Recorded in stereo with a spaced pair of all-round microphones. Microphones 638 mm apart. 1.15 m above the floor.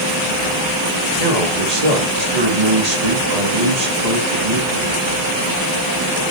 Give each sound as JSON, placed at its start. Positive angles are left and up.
{"t": 1.2, "sound": "a man speaking", "side_deg": -75, "distance_m": 2.5}